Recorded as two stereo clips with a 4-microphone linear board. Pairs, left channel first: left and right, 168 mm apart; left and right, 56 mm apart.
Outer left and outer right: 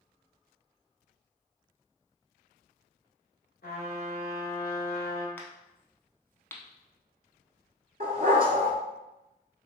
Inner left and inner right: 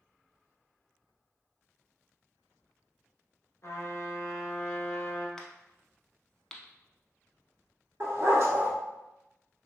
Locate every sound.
3.6 s a trumpet: 65° left (ahead or behind), 1.0 m
5.4 s a crack: 10° left (ahead or behind), 0.6 m
8.0 s a dog barking: 60° right (ahead or behind), 0.9 m